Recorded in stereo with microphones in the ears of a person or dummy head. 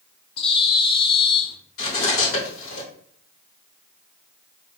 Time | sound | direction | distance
0.4 | a bird | 30° left (ahead or behind) | 0.6 m
1.8 | cutlery clinking | 75° left (ahead or behind) | 2.5 m